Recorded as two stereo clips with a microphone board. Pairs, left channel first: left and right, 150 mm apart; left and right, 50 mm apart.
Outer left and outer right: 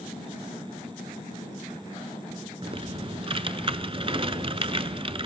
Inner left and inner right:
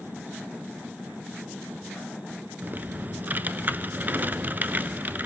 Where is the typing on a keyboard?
40° right (ahead or behind), 0.6 m.